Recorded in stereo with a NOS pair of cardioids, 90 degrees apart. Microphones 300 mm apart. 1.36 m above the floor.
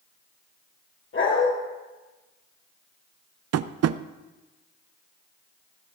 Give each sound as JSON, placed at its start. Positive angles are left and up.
{"t": 1.1, "sound": "a dog barking", "azimuth_deg": 45, "distance_m": 7.0}
{"t": 3.5, "sound": "tapping", "azimuth_deg": -55, "distance_m": 0.6}